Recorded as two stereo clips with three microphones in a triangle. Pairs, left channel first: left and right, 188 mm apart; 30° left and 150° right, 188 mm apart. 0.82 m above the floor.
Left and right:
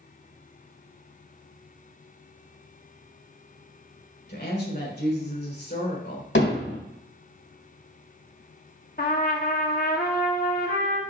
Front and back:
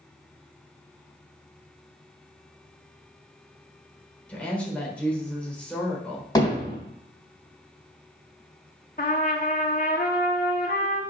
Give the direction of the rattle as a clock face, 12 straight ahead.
No rattle in this recording.